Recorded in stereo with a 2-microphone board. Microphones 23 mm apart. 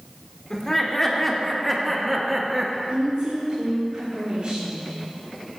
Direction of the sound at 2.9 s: 55° right (ahead or behind).